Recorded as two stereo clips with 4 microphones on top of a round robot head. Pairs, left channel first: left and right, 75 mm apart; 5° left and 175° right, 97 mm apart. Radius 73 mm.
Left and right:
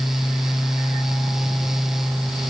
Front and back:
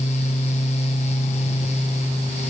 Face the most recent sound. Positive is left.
No sound to turn to.